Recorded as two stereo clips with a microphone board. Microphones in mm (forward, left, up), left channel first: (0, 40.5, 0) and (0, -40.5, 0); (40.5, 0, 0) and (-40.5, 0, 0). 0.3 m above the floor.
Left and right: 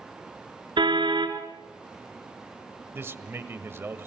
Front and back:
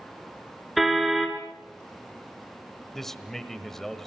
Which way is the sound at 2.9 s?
80° right.